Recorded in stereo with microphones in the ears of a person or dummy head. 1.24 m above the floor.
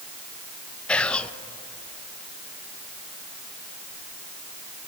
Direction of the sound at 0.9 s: 5° left (ahead or behind).